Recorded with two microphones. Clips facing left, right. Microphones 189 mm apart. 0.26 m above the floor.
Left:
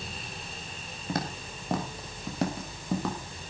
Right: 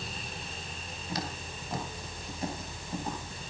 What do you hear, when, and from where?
1.1 s footsteps: 50° left (ahead or behind), 5.5 m; by 3.5 s 80° left, 5.5 m